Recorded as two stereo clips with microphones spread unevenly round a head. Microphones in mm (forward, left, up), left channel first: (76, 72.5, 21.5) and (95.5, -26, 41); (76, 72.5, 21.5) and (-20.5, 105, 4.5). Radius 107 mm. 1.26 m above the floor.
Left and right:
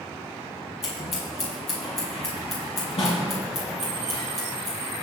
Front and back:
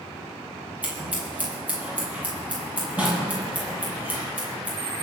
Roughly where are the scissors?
Left.